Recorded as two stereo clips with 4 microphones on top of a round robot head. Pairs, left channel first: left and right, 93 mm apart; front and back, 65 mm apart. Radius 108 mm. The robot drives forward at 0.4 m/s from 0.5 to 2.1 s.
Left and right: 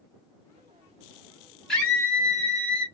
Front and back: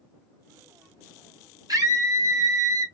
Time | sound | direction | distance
1.7 | a scream | 175° left | 1.4 m